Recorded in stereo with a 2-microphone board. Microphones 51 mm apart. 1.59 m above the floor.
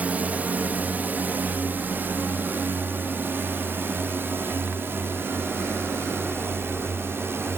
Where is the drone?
30° right (ahead or behind); by 7.6 s 50° right (ahead or behind).